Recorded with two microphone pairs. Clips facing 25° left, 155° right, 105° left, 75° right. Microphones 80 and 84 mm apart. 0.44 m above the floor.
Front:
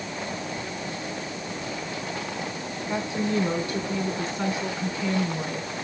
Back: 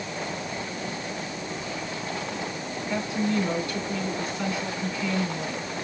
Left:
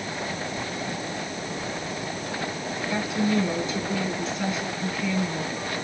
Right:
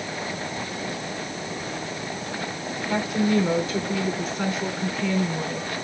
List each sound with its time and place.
2.9 s a woman speaking: 35° right, 4 m